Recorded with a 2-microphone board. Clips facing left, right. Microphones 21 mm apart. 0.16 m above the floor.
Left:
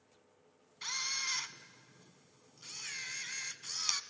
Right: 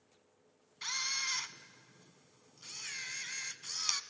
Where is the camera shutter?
5° right (ahead or behind), 0.7 m.